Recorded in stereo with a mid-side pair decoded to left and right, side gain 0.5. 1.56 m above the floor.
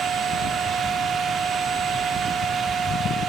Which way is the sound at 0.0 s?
50° right.